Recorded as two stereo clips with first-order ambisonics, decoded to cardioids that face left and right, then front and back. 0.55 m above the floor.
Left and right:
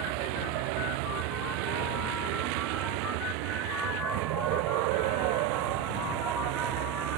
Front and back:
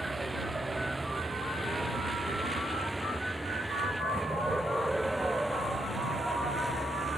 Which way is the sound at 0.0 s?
100° right.